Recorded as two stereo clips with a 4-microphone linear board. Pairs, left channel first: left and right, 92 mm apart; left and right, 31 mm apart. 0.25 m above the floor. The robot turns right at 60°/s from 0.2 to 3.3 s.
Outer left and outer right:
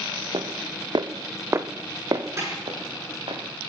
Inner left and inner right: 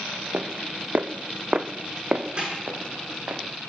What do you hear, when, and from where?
0.3 s footsteps: 55° right (ahead or behind), 1.4 m; by 3.4 s 85° right, 3 m
2.4 s a snare drum: 30° right (ahead or behind), 9 m; by 2.5 s 40° right (ahead or behind), 9 m